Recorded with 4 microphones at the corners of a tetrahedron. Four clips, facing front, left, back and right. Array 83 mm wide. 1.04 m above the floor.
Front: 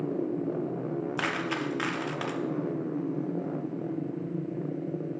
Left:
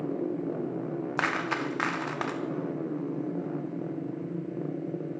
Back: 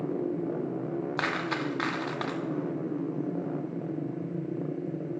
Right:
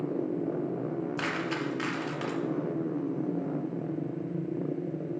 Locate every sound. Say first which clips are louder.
1.2 s a dropped coin: left 7 dB, back 1 dB; 115° left, 0.6 m